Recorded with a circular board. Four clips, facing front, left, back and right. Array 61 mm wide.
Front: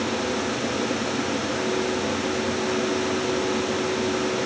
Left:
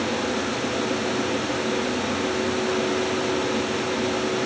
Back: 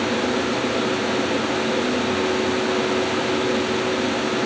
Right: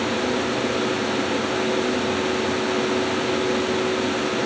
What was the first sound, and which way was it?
Only background noise.